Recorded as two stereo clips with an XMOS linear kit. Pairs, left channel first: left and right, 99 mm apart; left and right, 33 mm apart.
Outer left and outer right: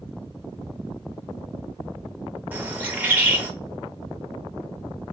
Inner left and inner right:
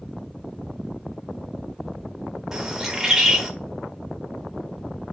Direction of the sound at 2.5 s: 20° right (ahead or behind).